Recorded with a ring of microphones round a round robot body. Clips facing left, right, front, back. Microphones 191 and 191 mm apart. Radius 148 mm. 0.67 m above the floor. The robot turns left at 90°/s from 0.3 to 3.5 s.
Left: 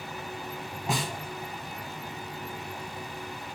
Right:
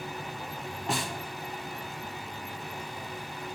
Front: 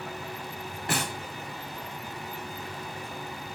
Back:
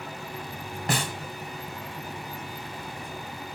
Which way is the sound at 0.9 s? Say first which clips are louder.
Left 1 dB, back 2 dB; 175° left.